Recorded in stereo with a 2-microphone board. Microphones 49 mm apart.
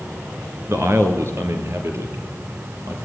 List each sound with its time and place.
0.7 s a man speaking: 50° right (ahead or behind), 3.5 m; by 3.0 s 60° right (ahead or behind), 6.5 m